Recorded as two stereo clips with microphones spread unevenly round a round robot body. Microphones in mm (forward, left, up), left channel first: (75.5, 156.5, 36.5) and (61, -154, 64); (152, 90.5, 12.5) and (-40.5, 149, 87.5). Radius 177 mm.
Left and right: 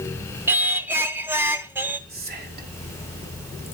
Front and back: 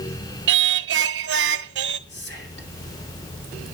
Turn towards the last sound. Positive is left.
turn(degrees=-30)